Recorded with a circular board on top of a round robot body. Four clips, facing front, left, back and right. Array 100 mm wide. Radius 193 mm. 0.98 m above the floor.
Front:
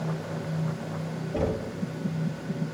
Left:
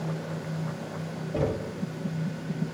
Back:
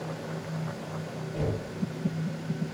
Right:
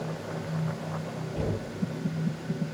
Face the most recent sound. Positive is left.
turn(degrees=50)